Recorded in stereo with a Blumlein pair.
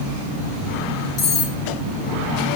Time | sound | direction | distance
1.2 | cutlery clinking | 30° left | 5.5 m